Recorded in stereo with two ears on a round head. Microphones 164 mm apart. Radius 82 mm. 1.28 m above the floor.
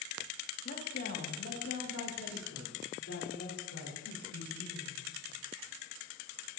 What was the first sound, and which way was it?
A woman speaking, 45° left (ahead or behind).